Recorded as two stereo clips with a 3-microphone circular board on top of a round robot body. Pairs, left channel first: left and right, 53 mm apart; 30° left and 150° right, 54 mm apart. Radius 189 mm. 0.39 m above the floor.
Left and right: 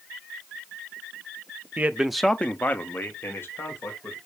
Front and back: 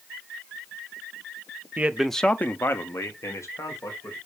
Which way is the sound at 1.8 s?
115° right.